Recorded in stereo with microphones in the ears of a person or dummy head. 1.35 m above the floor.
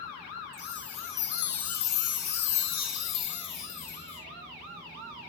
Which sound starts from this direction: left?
A chime, at 0.5 s.